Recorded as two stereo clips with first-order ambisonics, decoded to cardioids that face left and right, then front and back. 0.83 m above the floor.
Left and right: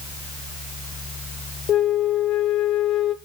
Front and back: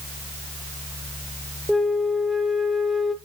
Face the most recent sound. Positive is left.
turn(degrees=90)